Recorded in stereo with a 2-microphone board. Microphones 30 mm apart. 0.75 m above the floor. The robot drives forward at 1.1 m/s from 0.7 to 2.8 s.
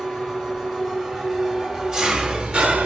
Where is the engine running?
15° right (ahead or behind), 3 m; by 2.9 s 55° right (ahead or behind), 0.9 m.